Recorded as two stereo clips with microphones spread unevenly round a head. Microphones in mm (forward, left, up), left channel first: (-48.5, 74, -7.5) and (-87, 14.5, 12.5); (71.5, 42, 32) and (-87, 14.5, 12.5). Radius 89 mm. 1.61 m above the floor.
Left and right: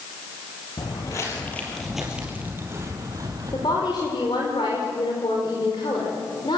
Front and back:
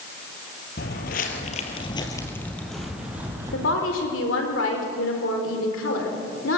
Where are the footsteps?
5° right, 3 m; by 3.9 s 95° right, 4 m.